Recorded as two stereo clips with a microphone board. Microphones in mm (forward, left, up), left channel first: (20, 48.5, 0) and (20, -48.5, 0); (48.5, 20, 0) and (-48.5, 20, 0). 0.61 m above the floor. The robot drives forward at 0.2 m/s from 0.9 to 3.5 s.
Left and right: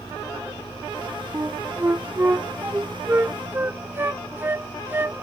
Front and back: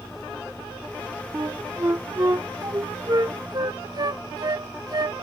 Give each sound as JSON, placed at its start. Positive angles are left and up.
{"t": 1.3, "sound": "a flute", "azimuth_deg": -135}